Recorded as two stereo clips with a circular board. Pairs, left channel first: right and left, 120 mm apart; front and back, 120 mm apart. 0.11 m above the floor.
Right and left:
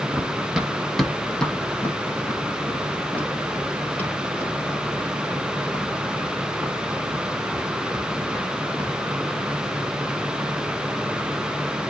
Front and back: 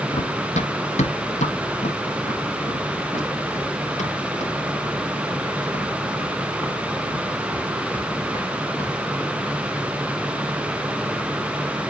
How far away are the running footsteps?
About 1.1 m.